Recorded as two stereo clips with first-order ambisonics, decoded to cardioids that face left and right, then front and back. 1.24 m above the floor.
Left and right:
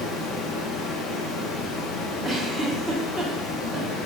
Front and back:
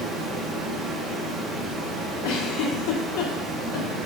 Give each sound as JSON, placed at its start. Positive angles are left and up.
{"t": 0.0, "sound": "running water", "azimuth_deg": 115, "distance_m": 0.8}
{"t": 2.2, "sound": "a giggle", "azimuth_deg": -5, "distance_m": 0.6}